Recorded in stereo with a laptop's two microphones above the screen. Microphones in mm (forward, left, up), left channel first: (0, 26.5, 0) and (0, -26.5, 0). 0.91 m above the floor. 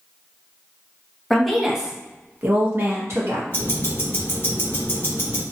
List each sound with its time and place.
1.3 s a woman speaking: 5° left (ahead or behind), 0.9 m; by 3.4 s 60° right (ahead or behind), 1.1 m
3.5 s ticking: 45° left (ahead or behind), 1.0 m